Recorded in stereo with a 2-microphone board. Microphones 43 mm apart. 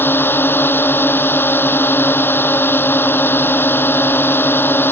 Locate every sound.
0.0 s a drone: 55° left (ahead or behind)